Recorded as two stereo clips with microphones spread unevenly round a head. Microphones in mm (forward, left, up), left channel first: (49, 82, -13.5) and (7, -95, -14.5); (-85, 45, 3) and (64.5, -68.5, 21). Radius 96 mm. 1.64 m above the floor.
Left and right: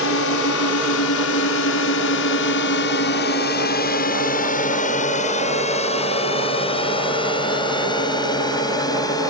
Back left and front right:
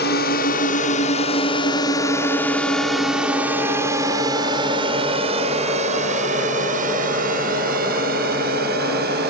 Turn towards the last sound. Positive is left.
turn(degrees=5)